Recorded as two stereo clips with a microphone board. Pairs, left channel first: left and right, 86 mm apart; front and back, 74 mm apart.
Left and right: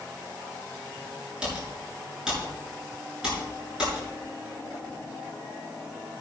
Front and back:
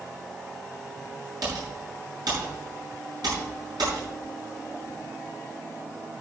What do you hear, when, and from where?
1.4 s typing on a keyboard: 170° right, 8 m